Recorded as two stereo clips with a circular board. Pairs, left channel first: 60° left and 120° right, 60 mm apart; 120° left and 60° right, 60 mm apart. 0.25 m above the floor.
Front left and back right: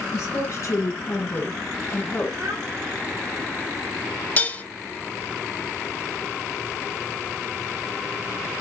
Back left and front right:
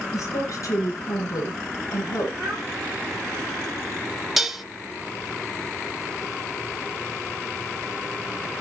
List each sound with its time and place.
0.1 s a woman speaking: 85° left, 3.5 m; by 2.3 s 120° left, 2.5 m
2.4 s a child speaking: 145° right, 4 m
4.4 s dishes clattering: 25° left, 0.8 m